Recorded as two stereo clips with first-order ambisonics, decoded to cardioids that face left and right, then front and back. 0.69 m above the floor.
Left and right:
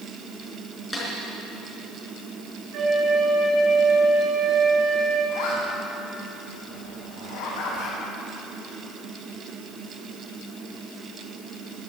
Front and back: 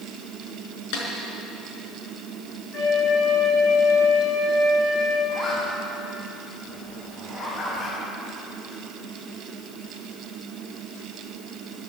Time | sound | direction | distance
0.9 | a snare drum | straight ahead | 4 m
2.7 | a flute | 65° right | 5.5 m
5.3 | a zipper | 60° left | 5 m